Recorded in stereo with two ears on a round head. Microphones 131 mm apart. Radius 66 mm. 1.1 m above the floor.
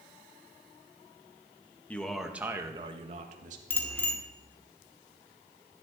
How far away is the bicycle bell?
About 2 m.